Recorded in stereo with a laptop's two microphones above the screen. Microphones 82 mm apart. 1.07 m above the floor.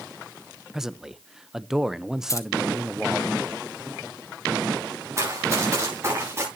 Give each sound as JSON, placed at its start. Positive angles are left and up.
{"t": 0.7, "sound": "a man speaking", "side_deg": -5, "distance_m": 0.7}
{"t": 2.3, "sound": "keys jangling", "side_deg": 35, "distance_m": 1.2}
{"t": 5.2, "sound": "running footsteps", "side_deg": -35, "distance_m": 8.0}